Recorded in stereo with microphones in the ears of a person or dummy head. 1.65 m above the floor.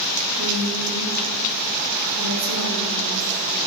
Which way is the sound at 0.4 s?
80° right.